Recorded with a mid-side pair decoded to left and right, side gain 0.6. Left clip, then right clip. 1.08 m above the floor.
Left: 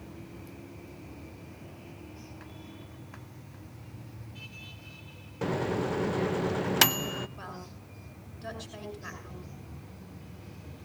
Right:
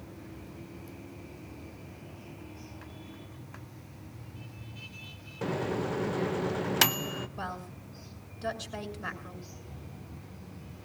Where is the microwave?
10° left, 0.6 m.